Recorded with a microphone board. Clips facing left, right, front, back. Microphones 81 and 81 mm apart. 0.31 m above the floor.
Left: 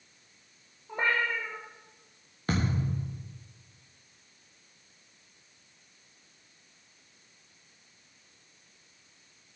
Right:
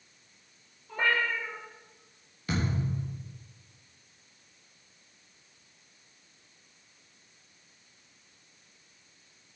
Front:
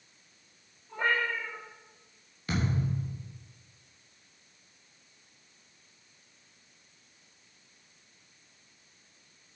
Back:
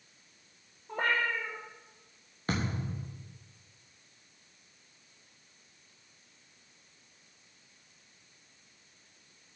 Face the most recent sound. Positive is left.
turn(degrees=135)